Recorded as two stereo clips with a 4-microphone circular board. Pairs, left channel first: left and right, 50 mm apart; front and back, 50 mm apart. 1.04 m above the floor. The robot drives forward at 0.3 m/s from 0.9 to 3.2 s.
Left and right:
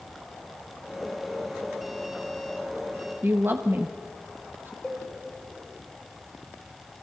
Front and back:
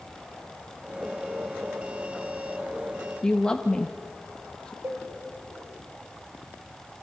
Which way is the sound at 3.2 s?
65° right.